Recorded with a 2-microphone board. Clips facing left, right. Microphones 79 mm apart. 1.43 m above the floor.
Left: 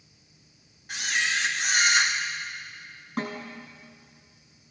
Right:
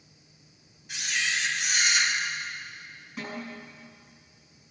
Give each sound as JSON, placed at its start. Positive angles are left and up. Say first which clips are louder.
{"t": 0.9, "sound": "a camera shutter", "louder": "left 3 dB", "side_deg": 55, "distance_m": 2.0}
{"t": 3.2, "sound": "a snare drum", "louder": "left 5 dB", "side_deg": 60, "distance_m": 7.0}